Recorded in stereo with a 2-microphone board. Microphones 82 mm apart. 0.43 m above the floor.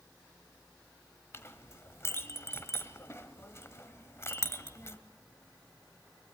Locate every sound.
1.3 s a clink: 35° left (ahead or behind), 1.3 m